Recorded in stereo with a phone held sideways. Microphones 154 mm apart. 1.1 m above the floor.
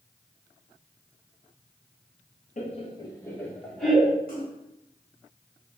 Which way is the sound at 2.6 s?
50° left (ahead or behind).